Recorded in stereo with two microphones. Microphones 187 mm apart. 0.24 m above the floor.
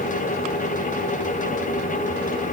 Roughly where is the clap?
I don't hear a clap.